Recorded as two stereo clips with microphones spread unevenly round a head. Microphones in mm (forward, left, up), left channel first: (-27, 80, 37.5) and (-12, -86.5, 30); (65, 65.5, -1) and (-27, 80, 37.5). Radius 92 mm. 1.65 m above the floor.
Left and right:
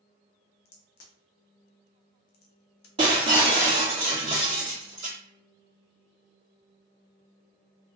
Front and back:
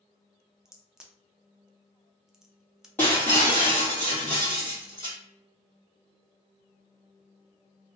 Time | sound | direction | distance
0.7 | a crack | 105° left | 0.6 m
3.0 | breaking glass | 110° right | 1.8 m